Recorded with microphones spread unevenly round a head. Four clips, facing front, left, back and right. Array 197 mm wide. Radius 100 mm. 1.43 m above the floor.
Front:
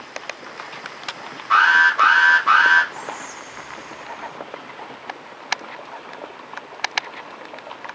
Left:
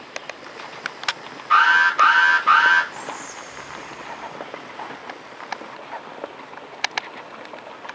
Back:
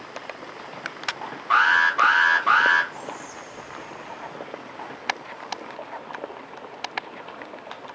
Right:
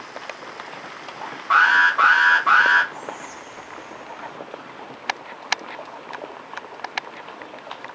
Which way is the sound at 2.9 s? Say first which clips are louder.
Left 1 dB, front 3 dB; 90° left.